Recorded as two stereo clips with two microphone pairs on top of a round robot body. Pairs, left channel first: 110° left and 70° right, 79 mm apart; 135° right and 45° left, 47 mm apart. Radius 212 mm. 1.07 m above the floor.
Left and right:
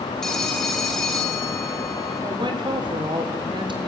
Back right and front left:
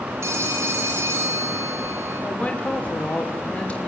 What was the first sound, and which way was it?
A phone ringing, 25° left.